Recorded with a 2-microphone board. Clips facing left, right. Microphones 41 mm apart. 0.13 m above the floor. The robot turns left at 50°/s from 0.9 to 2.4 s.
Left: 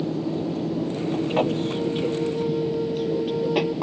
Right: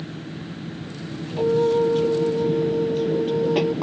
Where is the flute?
120° right; by 3.8 s 170° right.